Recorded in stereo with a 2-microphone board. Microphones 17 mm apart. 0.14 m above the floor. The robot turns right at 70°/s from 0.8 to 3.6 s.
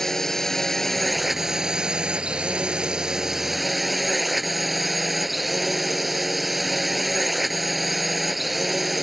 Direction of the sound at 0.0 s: 155° left.